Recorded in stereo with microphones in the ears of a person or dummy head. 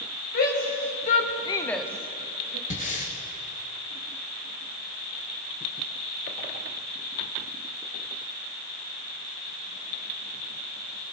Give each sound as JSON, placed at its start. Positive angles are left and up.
{"t": 0.3, "sound": "a shout", "side_deg": 55, "distance_m": 2.5}
{"t": 2.7, "sound": "breathing", "side_deg": 45, "distance_m": 1.2}